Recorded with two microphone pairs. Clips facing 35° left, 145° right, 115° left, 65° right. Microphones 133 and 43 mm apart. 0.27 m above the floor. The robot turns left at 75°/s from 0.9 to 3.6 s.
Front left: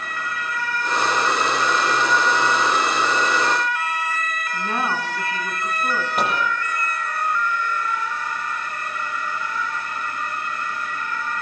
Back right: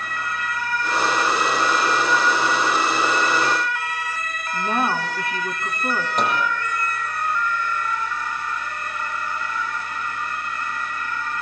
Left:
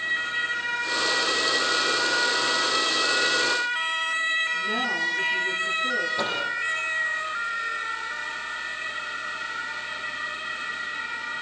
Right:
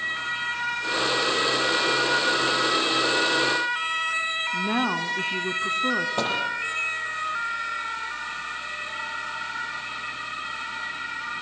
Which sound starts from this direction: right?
A woman speaking, at 4.5 s.